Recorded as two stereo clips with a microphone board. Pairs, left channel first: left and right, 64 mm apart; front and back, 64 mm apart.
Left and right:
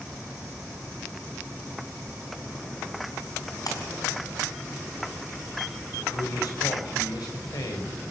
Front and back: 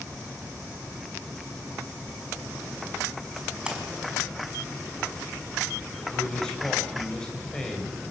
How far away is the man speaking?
About 6 m.